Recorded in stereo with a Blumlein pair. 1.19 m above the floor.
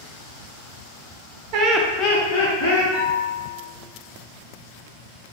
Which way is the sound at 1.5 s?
40° right.